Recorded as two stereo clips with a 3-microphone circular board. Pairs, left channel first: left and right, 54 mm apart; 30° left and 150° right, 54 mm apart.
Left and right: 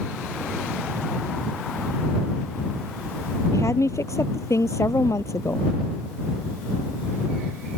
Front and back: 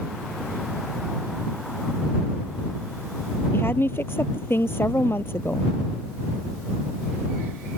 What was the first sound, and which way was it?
A woman speaking, 75° left.